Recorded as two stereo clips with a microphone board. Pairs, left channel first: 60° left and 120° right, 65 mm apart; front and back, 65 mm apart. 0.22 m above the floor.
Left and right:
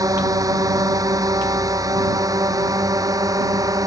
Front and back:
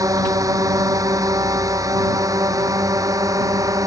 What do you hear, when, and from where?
0.0 s a drone: 150° right